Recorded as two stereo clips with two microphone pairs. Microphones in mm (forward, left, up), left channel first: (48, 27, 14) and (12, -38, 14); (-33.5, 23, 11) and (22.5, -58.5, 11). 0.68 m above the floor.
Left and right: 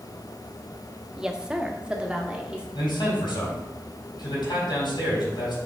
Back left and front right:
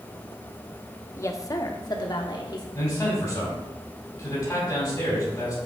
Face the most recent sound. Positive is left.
turn(degrees=60)